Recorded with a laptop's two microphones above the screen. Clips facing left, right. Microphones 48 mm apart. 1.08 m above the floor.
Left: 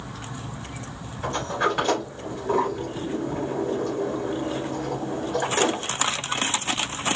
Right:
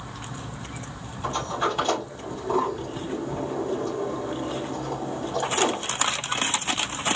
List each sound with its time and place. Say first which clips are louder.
1.2 s a sliding door: left 2 dB; 65° left (ahead or behind), 3 m